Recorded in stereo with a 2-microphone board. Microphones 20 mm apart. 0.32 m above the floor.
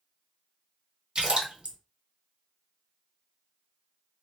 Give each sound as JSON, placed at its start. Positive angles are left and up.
{"t": 1.1, "sound": "a splash", "side_deg": -45, "distance_m": 1.2}